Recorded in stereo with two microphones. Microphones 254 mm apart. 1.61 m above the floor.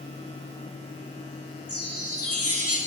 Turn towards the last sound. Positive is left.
turn(degrees=65)  # may be behind; listen again after turning